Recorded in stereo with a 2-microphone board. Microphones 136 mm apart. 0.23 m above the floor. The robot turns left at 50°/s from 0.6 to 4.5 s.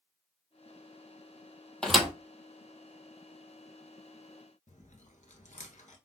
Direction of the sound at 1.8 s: 5° left (ahead or behind).